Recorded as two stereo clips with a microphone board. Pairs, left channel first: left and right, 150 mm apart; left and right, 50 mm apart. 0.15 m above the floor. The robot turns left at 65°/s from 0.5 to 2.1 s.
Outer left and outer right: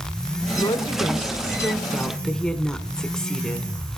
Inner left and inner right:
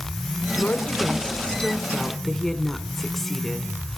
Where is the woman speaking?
25° left (ahead or behind), 1.2 m; by 3.7 s 5° left (ahead or behind), 1.2 m.